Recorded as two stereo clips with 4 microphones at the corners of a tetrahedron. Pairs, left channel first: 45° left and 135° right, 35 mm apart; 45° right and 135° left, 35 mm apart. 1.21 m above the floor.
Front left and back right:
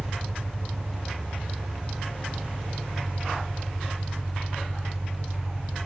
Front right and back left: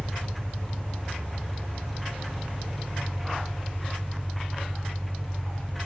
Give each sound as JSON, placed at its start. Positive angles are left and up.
{"t": 0.0, "sound": "an engine running", "azimuth_deg": -80, "distance_m": 3.0}